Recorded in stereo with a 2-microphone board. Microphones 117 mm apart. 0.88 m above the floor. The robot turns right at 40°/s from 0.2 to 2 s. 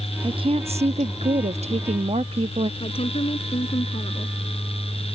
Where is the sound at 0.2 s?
135° right; by 2.7 s 65° right.